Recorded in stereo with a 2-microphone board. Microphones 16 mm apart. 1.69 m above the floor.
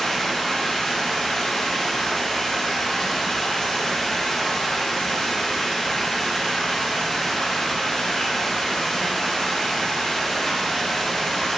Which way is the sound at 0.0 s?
50° left (ahead or behind).